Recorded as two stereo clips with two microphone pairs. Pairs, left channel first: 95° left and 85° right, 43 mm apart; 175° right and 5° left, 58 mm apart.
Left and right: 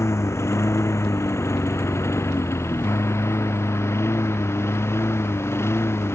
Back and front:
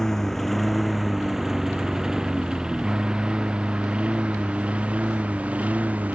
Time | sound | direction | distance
0.0 | a lawn mower | 105° left | ?